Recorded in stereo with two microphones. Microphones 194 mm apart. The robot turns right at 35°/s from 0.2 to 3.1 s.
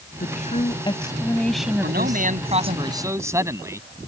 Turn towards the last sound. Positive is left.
turn(degrees=-15)